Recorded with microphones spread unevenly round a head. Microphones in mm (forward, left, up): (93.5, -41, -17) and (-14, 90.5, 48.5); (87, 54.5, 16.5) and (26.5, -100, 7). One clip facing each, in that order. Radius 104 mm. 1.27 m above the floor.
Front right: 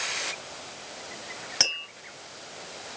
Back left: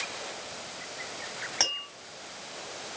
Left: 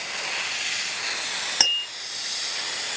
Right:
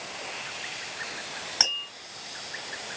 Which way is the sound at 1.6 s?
15° left.